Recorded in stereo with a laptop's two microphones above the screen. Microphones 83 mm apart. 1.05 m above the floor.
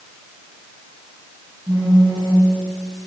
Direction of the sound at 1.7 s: 65° right (ahead or behind).